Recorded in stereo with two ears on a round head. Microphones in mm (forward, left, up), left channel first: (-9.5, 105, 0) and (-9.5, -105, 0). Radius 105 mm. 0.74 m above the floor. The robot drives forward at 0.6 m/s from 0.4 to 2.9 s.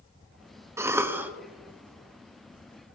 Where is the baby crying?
No baby crying in this recording.